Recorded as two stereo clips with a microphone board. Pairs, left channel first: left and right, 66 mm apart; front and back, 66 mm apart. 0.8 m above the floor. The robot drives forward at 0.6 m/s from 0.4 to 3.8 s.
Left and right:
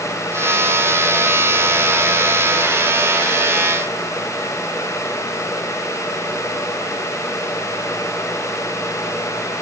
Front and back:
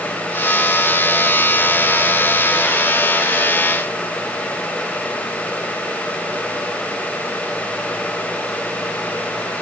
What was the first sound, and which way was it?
Only background noise.